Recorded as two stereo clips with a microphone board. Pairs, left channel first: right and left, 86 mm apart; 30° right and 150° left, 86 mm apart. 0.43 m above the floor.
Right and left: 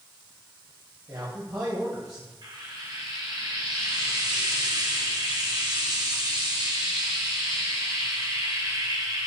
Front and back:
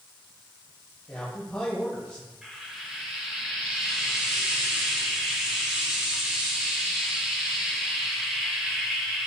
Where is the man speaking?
45° left, 2 m.